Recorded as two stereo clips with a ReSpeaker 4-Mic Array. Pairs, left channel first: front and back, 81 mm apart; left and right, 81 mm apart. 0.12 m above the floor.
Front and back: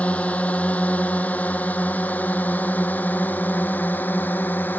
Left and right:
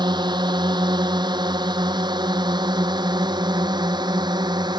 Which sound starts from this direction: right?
A drone, at 0.0 s.